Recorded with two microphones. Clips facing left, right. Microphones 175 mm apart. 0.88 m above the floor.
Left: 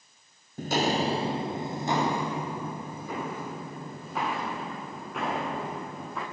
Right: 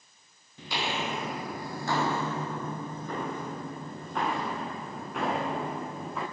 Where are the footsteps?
45° left (ahead or behind), 1.3 m; by 6.2 s centre (ahead or behind), 7 m.